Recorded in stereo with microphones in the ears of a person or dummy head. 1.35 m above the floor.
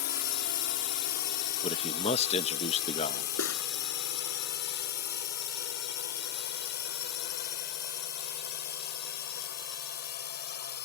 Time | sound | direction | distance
0.0 | a drone | 60° left (ahead or behind) | ?
1.6 | a man speaking | 30° left (ahead or behind) | ?
3.4 | cutlery clinking | 85° left | ?